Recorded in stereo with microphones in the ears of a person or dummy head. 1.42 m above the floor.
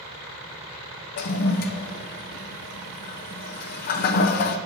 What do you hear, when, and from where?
1.2 s a toilet flushing: 55° left (ahead or behind), 0.6 m